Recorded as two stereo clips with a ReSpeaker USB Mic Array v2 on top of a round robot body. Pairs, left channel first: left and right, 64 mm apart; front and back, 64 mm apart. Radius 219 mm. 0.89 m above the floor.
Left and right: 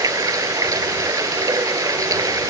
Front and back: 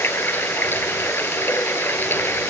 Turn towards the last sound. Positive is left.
turn(degrees=-60)